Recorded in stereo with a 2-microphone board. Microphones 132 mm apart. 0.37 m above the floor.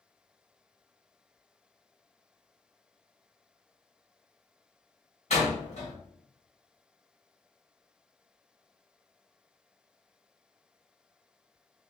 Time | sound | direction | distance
5.3 | a door slam | 55° left (ahead or behind) | 1.9 m